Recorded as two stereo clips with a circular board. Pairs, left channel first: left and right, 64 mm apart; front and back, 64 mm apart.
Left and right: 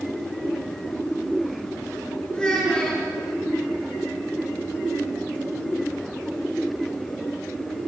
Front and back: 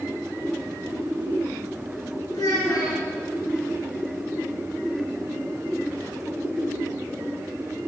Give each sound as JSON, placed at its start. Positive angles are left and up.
{"t": 2.3, "sound": "a child speaking", "azimuth_deg": 10, "distance_m": 4.5}